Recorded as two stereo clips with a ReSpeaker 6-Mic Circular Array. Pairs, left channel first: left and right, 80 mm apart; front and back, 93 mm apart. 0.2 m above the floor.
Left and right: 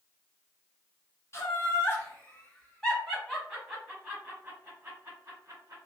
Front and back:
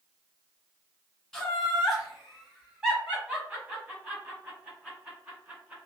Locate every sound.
1.3 s laughter: 85° left, 1.6 m; by 5.8 s 115° right, 1.9 m